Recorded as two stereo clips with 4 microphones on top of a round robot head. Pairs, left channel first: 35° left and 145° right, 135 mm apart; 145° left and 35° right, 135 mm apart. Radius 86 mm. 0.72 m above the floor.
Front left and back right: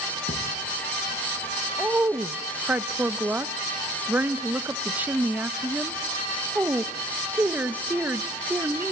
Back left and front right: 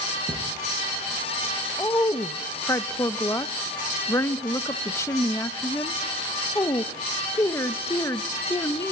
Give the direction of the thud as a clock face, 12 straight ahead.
10 o'clock.